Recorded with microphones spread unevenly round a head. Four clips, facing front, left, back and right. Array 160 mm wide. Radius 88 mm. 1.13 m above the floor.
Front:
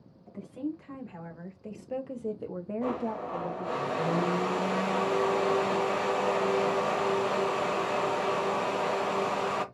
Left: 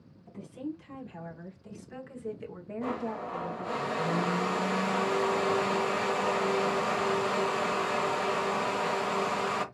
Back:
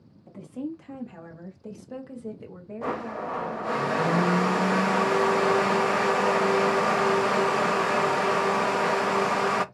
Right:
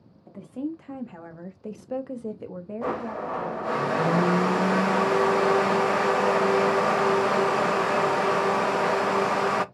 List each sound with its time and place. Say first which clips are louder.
0.3 s a woman speaking: right 6 dB, back 1 dB; 120° right, 1.8 m; by 3.8 s 15° left, 1.3 m
2.8 s a blender: right 4 dB, back 2 dB; 130° right, 0.5 m